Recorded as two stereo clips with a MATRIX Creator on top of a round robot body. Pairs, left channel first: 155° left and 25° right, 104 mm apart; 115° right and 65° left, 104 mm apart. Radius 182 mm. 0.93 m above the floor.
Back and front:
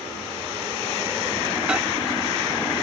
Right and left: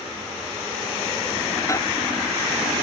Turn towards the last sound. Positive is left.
turn(degrees=-95)